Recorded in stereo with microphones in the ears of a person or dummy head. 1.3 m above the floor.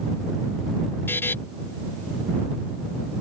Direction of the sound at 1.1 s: 15° left (ahead or behind).